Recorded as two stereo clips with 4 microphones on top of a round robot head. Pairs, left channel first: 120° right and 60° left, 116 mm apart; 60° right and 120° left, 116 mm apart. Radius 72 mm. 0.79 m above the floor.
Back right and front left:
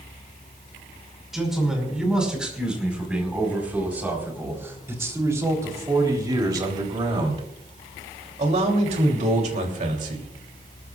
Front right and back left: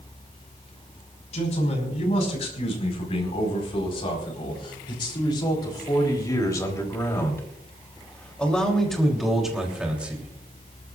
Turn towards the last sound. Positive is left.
turn(degrees=45)